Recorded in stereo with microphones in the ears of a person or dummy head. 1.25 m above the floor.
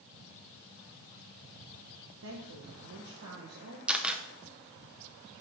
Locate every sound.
2.2 s a woman speaking: 70° right (ahead or behind), 1.2 m
3.9 s a camera shutter: 5° right (ahead or behind), 0.6 m